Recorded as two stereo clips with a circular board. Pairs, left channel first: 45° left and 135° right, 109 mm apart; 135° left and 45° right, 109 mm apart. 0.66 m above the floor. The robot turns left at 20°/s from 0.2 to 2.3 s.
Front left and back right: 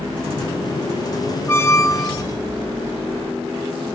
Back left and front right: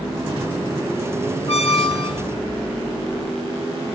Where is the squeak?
110° left, 0.8 m; by 2.2 s 95° left, 0.8 m.